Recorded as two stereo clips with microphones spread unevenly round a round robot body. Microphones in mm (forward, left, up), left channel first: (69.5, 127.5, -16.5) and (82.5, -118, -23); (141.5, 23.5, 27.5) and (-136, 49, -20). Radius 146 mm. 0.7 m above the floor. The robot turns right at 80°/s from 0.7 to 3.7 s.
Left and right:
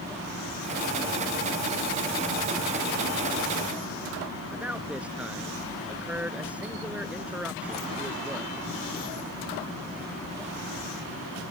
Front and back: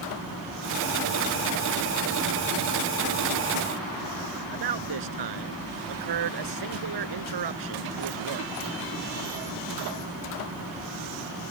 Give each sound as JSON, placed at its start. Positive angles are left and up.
{"t": 4.5, "sound": "a man speaking", "azimuth_deg": -175}